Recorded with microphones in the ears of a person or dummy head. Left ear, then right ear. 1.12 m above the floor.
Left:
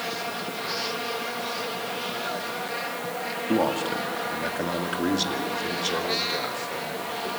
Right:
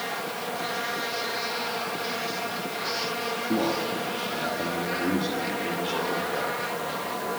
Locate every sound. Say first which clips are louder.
3.5 s a man speaking: left 4 dB; 45° left (ahead or behind), 1.8 m; by 7.3 s 80° left, 4 m